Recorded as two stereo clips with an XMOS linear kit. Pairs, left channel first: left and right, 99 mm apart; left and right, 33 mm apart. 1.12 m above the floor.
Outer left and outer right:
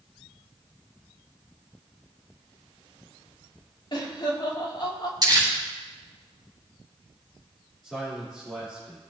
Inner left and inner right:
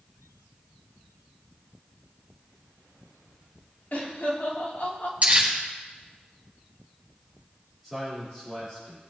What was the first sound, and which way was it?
Laughter, 50° left (ahead or behind).